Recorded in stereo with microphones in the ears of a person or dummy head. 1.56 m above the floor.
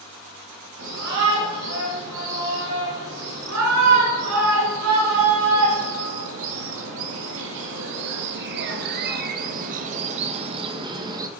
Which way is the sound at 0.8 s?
80° right.